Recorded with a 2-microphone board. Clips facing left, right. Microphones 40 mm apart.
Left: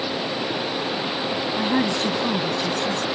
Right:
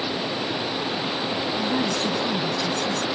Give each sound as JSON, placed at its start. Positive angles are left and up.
{"t": 0.0, "sound": "running water", "side_deg": 5}
{"t": 1.6, "sound": "a woman speaking", "side_deg": 30}